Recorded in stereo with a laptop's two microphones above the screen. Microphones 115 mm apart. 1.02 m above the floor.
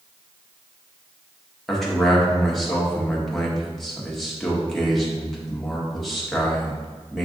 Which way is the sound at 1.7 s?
Centre (ahead or behind).